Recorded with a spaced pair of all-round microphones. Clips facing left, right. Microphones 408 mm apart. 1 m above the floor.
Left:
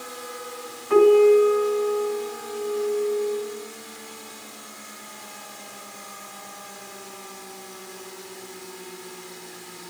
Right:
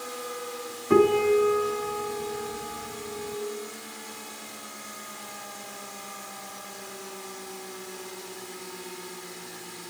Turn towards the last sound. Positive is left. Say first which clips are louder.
# left 6 dB
turn(degrees=-55)  # may be behind; listen again after turning